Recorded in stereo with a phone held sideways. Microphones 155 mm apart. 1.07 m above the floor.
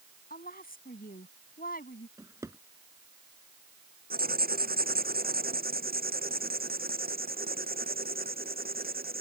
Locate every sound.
0.3 s a woman speaking: 70° left (ahead or behind)
2.2 s a drawer: 20° right (ahead or behind)
4.1 s writing: 75° right (ahead or behind)